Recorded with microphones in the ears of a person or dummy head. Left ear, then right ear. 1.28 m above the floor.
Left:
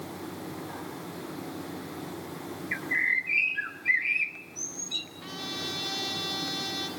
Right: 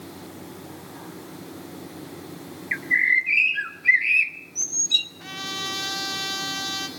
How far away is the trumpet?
About 7 m.